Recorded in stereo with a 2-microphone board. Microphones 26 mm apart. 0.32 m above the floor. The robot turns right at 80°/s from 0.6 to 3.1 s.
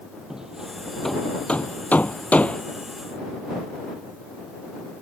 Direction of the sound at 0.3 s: 25° right (ahead or behind).